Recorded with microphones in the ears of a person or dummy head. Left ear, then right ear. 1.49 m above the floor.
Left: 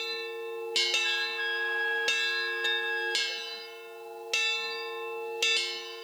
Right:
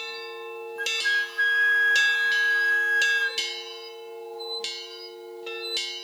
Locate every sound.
0.8 s a flute: 35° right (ahead or behind), 0.6 m